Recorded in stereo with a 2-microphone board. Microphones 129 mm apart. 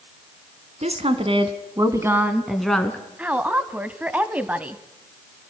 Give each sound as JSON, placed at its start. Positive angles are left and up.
{"t": 0.8, "sound": "a woman speaking", "side_deg": -60, "distance_m": 2.5}
{"t": 3.2, "sound": "a woman speaking", "side_deg": -10, "distance_m": 1.1}